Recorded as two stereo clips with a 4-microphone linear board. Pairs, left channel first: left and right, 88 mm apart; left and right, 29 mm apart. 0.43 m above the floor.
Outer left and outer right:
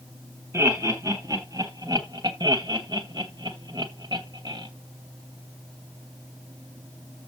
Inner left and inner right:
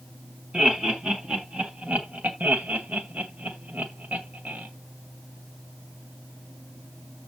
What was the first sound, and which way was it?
Laughter, 35° right (ahead or behind).